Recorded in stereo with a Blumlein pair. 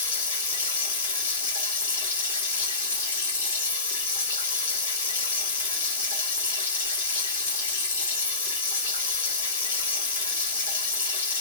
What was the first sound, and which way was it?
Running water, 70° left.